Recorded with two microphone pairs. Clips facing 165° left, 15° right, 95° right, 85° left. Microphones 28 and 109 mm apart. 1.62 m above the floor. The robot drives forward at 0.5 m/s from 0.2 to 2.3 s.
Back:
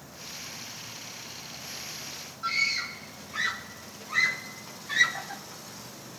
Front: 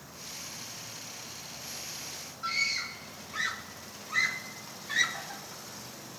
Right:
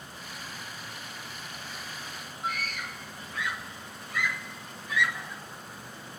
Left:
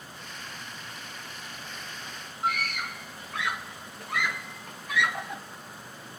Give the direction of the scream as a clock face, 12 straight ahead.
9 o'clock.